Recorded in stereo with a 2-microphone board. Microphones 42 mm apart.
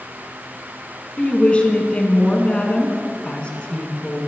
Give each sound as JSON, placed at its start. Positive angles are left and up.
{"t": 1.2, "sound": "a woman speaking", "side_deg": 25, "distance_m": 1.2}